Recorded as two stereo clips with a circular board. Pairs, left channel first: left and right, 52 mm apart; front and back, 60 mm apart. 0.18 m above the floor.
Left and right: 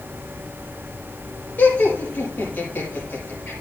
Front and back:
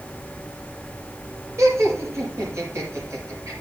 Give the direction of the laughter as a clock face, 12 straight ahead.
7 o'clock.